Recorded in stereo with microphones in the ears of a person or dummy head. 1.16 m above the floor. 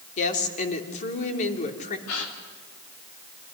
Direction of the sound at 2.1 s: 80° left.